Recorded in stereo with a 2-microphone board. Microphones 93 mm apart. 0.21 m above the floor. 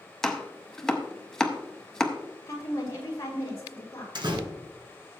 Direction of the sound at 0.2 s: 5° left (ahead or behind).